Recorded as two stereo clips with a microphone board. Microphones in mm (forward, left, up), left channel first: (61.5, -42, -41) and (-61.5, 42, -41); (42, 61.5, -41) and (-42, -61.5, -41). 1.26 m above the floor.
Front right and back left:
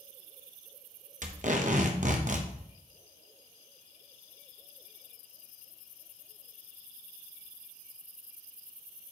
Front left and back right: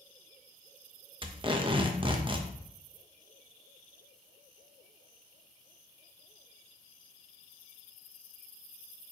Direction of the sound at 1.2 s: Straight behind.